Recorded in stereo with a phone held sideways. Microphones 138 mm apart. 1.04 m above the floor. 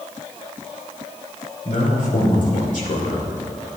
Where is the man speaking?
75° left (ahead or behind), 3.5 m.